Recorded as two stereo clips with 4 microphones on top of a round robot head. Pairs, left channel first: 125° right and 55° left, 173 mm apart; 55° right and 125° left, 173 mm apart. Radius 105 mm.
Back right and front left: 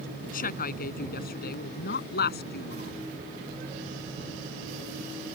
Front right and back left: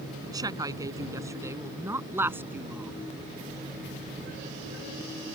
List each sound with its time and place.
0.2 s a woman speaking: 165° right; by 3.0 s 155° right